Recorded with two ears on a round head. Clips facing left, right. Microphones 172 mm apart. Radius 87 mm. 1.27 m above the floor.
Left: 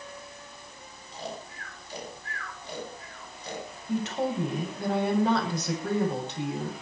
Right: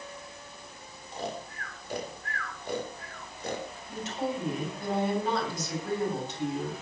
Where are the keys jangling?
I don't hear keys jangling.